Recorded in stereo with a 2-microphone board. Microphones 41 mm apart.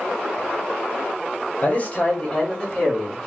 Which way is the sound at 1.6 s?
35° left (ahead or behind).